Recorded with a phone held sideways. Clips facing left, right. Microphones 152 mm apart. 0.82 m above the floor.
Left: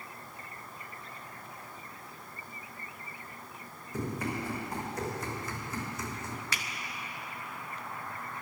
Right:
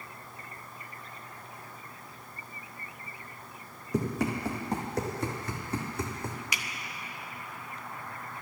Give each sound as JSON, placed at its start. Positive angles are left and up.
{"t": 3.9, "sound": "running footsteps", "side_deg": -75, "distance_m": 3.0}
{"t": 6.5, "sound": "a finger snap", "side_deg": -15, "distance_m": 0.8}